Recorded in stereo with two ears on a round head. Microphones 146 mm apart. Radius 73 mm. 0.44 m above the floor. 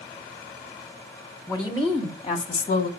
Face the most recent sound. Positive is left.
turn(degrees=40)  # may be behind; listen again after turning